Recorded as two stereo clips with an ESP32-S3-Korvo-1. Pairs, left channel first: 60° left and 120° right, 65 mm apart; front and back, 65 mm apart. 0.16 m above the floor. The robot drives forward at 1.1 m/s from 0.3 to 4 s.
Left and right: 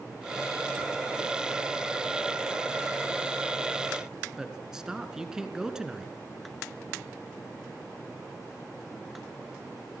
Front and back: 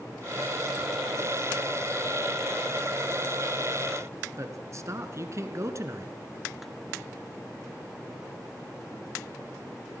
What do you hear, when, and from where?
4.4 s a man speaking: 160° left, 2 m